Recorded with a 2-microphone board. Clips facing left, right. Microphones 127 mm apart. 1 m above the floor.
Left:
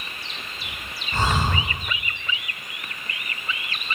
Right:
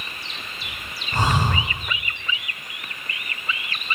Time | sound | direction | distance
1.1 | breathing | 15° right (ahead or behind) | 4 m